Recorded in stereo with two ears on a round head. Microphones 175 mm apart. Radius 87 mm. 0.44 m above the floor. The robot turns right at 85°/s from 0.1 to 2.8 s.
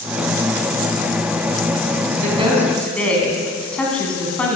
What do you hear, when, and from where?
2.2 s a woman speaking: 45° right, 3 m; by 4.6 s 5° left, 3 m